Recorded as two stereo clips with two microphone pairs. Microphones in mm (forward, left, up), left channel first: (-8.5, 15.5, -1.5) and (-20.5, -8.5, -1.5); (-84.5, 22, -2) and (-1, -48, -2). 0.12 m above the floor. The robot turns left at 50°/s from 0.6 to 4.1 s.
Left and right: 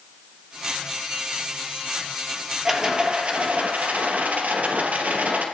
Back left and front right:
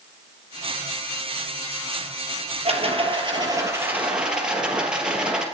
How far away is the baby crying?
I don't hear a baby crying.